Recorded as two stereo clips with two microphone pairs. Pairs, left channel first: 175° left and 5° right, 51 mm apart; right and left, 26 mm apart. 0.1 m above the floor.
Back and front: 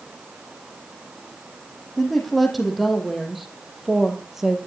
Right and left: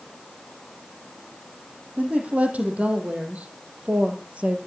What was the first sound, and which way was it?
A woman speaking, 85° left.